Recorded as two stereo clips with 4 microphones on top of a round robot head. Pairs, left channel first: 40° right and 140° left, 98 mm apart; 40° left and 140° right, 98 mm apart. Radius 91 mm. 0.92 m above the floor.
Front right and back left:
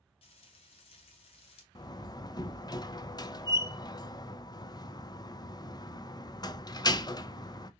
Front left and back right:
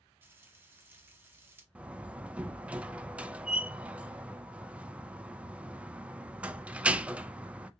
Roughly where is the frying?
Right.